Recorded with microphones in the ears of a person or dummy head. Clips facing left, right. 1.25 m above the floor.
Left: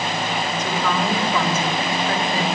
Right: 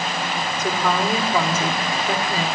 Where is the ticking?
I don't hear ticking.